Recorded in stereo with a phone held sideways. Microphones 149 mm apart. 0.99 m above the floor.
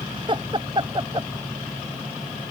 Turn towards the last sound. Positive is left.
turn(degrees=-35)  # may be behind; listen again after turning